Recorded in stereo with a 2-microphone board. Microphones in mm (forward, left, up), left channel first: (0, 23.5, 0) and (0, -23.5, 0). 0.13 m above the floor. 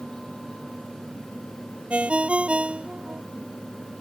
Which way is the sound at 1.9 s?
25° right (ahead or behind).